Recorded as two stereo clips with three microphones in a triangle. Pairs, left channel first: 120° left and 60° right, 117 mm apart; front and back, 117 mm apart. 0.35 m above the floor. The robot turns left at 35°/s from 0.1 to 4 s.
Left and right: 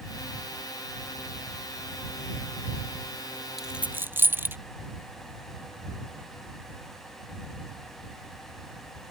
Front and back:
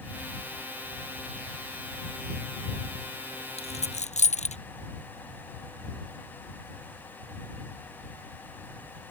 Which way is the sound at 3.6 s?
30° left.